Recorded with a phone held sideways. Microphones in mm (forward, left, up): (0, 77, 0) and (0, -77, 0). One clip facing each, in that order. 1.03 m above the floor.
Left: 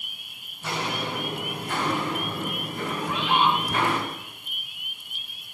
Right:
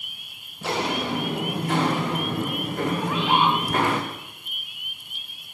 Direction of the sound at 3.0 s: 45° right (ahead or behind).